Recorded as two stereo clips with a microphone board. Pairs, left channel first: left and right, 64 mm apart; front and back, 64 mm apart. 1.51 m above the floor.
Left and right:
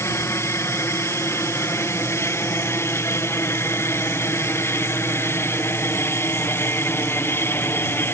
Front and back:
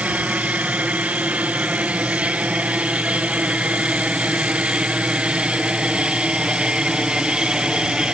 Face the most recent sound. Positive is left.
turn(degrees=110)